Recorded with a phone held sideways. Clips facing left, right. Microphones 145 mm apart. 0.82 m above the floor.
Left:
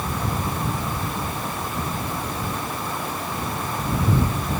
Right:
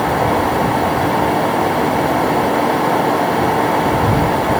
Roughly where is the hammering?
No hammering in this recording.